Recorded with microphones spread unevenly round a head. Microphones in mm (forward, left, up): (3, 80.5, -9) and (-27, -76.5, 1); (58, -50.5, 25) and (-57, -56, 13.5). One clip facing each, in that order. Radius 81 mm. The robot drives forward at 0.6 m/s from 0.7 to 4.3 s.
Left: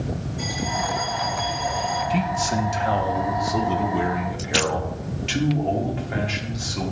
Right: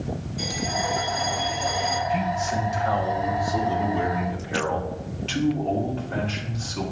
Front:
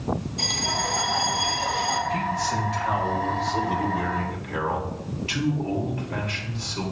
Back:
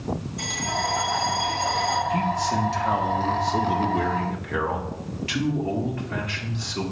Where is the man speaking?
110° left, 1.1 m; by 6.9 s 150° left, 1.9 m.